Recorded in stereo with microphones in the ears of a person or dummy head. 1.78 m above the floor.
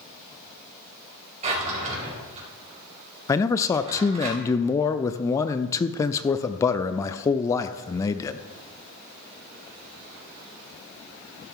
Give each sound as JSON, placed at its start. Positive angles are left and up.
{"t": 1.4, "sound": "a drawer", "side_deg": -25, "distance_m": 3.5}
{"t": 3.3, "sound": "a man speaking", "side_deg": 30, "distance_m": 0.5}